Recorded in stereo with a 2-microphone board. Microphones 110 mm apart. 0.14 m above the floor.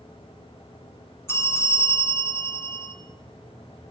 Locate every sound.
1.3 s a bell: 25° left (ahead or behind), 1.4 m